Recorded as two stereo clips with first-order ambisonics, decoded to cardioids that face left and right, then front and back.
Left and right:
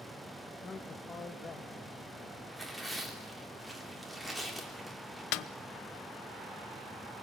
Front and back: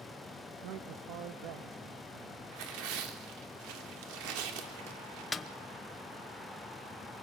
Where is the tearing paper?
175° left, 3 m.